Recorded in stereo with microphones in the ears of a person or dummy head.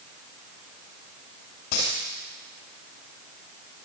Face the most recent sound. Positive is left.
turn(degrees=35)  # may be behind; listen again after turning